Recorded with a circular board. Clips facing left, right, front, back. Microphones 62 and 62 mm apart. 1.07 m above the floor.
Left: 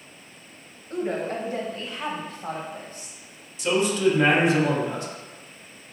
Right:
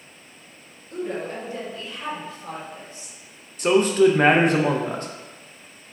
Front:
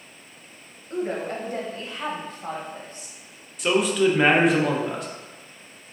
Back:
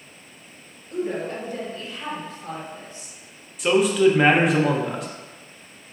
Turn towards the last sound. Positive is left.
turn(degrees=-90)